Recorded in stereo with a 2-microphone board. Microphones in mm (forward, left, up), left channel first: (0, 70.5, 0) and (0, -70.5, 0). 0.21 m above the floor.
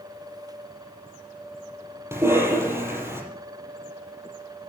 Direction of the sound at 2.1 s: 15° right (ahead or behind).